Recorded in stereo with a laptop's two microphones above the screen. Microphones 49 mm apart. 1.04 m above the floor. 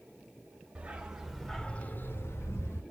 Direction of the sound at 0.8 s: 20° right (ahead or behind).